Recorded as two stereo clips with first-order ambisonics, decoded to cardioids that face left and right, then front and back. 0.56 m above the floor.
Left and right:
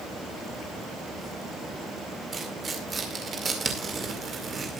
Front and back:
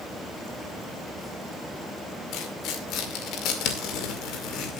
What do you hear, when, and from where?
2.3 s tearing paper: 25° right, 2 m